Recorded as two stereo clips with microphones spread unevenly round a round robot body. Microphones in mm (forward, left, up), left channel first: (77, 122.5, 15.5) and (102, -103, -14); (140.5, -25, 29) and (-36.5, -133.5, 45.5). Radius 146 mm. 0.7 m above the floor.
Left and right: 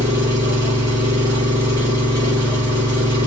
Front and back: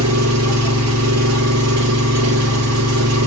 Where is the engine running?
165° right, 0.8 m.